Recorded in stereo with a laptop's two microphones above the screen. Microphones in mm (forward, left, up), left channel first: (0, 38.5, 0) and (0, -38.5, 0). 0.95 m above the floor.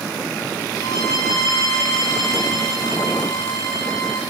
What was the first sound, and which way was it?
A violin, 45° left (ahead or behind).